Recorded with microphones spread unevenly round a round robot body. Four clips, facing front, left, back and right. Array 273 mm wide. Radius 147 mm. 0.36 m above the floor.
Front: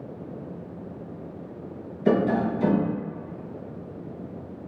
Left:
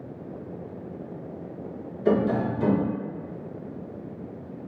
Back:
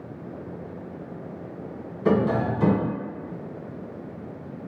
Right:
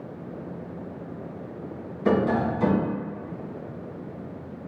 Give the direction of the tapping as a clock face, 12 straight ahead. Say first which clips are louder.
Even, even; 5 o'clock.